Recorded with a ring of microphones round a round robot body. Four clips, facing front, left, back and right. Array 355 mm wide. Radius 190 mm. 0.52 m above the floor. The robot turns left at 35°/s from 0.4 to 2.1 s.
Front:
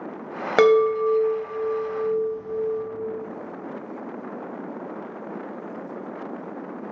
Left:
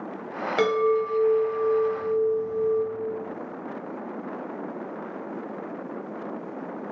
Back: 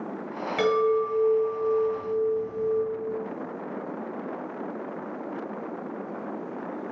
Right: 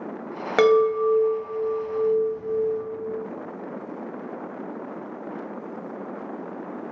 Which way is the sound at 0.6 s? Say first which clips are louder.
Right 5 dB, front 6 dB; 25° right.